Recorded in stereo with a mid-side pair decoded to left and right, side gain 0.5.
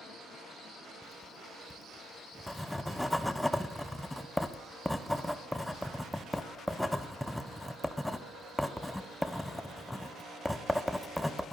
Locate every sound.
1.0 s writing: 5° left, 1.0 m